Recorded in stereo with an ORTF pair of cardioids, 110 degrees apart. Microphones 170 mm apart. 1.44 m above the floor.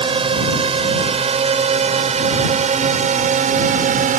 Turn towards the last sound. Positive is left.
turn(degrees=-50)